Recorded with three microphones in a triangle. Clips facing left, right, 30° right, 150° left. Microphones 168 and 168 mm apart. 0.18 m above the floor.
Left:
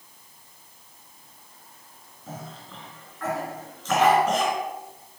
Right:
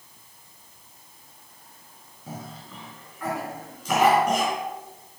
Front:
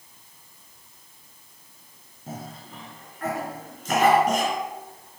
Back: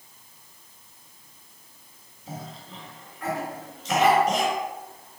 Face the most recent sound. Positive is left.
turn(degrees=-15)